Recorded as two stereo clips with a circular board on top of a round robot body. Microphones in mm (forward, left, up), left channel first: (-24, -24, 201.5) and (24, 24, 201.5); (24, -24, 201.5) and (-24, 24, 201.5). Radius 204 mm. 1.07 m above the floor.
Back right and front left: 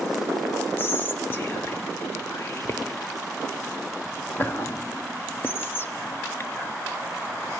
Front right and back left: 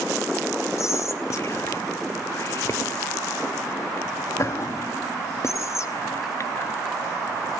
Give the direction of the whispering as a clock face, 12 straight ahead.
3 o'clock.